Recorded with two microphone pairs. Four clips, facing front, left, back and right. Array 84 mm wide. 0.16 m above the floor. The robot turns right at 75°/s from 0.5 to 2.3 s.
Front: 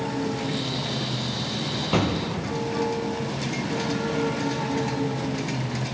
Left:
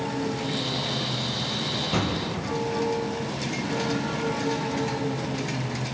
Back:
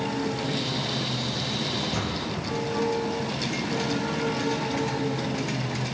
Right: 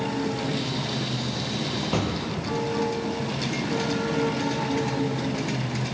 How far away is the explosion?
About 3 m.